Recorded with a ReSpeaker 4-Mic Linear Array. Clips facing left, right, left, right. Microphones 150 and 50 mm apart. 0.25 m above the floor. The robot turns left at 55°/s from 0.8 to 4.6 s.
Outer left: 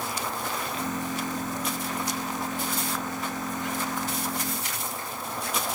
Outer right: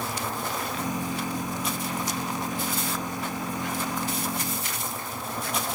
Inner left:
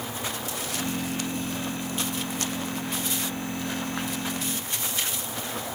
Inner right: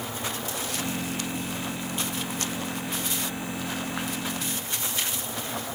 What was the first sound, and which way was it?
Only background noise.